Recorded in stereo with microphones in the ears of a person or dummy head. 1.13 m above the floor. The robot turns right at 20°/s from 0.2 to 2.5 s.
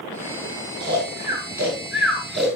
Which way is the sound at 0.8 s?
35° right (ahead or behind).